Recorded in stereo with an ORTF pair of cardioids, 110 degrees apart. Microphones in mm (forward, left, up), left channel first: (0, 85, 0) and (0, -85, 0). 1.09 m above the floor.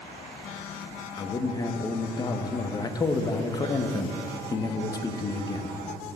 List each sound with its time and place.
1.2 s a man speaking: 20° left, 0.9 m